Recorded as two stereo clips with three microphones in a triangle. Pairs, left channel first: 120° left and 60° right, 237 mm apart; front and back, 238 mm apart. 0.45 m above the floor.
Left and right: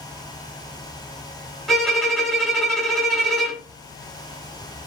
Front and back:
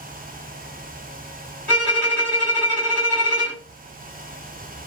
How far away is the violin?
About 1.2 m.